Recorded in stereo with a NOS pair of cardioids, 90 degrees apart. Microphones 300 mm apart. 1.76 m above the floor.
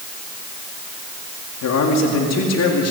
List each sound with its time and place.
1.6 s a man speaking: 65° left, 4.5 m; by 2.9 s 55° left, 4.5 m